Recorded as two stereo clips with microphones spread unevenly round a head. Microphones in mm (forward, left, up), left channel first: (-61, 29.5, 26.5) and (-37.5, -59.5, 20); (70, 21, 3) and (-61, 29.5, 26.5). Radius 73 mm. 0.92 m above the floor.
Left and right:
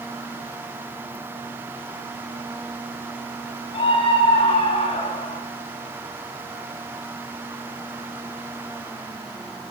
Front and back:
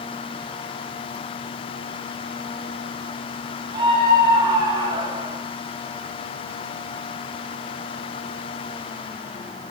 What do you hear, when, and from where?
3.7 s a scream: 115° left, 10 m